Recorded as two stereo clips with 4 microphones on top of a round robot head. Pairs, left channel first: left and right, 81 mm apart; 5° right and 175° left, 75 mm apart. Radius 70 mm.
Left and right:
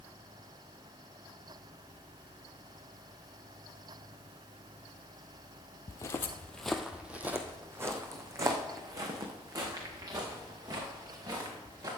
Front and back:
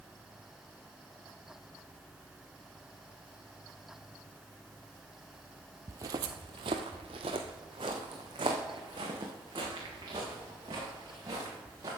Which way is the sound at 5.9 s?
130° left.